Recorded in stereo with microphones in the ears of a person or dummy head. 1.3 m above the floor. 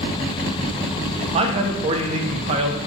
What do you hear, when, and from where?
1.3 s a man speaking: 35° right (ahead or behind), 0.5 m